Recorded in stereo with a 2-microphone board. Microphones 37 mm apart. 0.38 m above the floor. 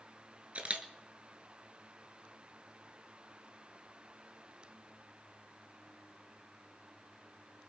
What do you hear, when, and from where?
0.6 s a camera shutter: 35° right (ahead or behind), 1.8 m